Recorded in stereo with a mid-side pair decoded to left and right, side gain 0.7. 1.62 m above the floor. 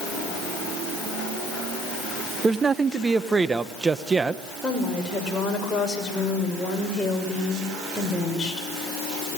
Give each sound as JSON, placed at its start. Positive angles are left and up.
{"t": 2.4, "sound": "a man speaking", "azimuth_deg": -20, "distance_m": 1.1}
{"t": 4.6, "sound": "a woman speaking", "azimuth_deg": 15, "distance_m": 6.5}